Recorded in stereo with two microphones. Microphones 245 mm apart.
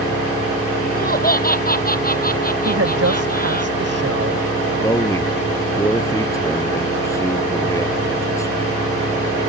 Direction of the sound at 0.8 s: 35° left (ahead or behind).